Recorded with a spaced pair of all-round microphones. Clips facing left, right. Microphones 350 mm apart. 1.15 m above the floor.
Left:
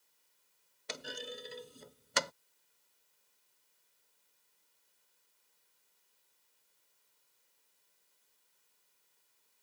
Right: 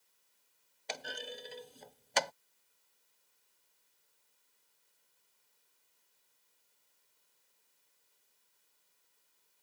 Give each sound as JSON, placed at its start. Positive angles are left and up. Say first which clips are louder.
{"t": 0.9, "sound": "a clunk", "louder": "even", "side_deg": 15}